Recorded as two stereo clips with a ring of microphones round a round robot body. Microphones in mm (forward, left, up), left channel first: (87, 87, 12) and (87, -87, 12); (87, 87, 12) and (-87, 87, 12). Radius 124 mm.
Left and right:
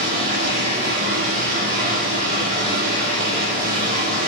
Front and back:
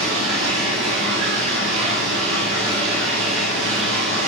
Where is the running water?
145° right, 9 m.